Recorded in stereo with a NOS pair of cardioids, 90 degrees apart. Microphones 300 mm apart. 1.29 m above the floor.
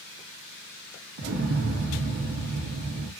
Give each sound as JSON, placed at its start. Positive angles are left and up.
{"t": 1.2, "sound": "an explosion", "azimuth_deg": -45, "distance_m": 2.0}